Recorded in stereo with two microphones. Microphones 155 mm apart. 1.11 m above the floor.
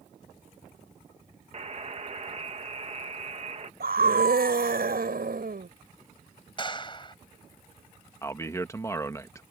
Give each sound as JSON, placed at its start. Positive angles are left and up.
{"t": 1.5, "sound": "a buzzer", "side_deg": -45}
{"t": 3.8, "sound": "a scream", "side_deg": -80}
{"t": 6.6, "sound": "a clap", "side_deg": 30}
{"t": 8.2, "sound": "a man speaking", "side_deg": 20}